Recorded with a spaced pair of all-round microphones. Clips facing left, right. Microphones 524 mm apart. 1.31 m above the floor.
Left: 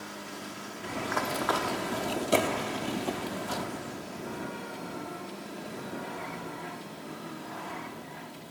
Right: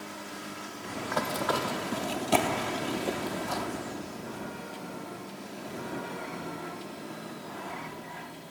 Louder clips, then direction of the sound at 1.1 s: Right 2 dB; 55° right (ahead or behind).